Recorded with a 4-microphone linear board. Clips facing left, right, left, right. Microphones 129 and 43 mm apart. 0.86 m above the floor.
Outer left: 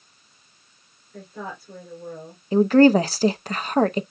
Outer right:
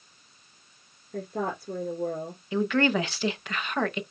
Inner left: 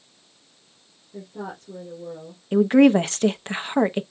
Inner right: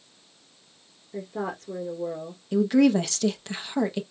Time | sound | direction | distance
1.1 | a woman speaking | 60° right (ahead or behind) | 2.5 m
2.5 | a woman speaking | 35° left (ahead or behind) | 0.6 m